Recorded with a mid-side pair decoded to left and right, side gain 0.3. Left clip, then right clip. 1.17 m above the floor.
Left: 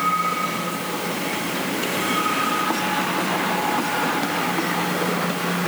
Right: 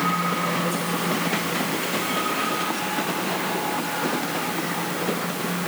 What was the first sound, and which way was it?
Only background noise.